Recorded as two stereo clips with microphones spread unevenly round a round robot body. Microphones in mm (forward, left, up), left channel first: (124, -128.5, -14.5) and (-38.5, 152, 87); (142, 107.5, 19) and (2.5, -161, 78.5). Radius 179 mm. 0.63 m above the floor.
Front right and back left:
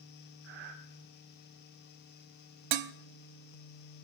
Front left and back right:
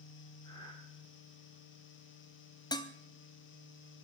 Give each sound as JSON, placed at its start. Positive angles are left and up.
{"t": 0.4, "sound": "breathing", "azimuth_deg": 135, "distance_m": 1.5}
{"t": 2.7, "sound": "dishes clattering", "azimuth_deg": 120, "distance_m": 0.6}